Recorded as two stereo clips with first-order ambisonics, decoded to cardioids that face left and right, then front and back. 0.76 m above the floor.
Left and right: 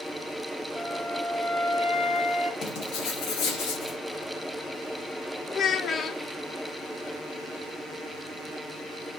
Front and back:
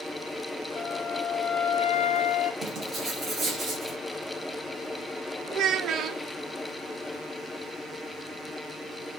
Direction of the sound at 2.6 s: 115° left.